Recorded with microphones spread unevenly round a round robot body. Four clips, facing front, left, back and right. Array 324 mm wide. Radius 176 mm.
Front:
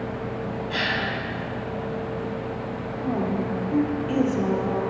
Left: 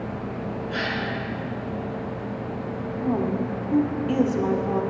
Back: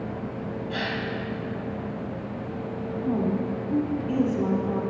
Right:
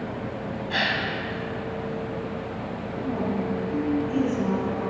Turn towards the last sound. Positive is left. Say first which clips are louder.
# left 3 dB, even
turn(degrees=85)